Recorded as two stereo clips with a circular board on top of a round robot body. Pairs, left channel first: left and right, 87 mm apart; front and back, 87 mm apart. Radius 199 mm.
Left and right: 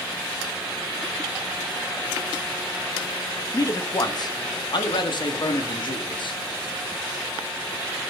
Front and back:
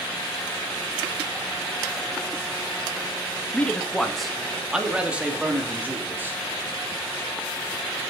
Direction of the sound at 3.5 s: 65° left.